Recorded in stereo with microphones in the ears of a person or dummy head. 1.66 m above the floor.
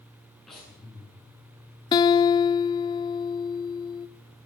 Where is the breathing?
5° left (ahead or behind), 9.5 m.